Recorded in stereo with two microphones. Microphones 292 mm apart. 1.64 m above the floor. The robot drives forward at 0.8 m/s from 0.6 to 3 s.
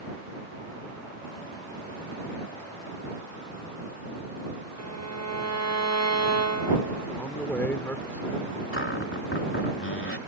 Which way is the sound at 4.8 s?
60° right (ahead or behind).